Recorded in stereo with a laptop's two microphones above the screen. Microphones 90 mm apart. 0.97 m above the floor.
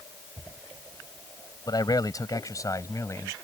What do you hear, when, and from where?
1.7 s a man speaking: 50° left (ahead or behind); by 3.4 s 35° left (ahead or behind)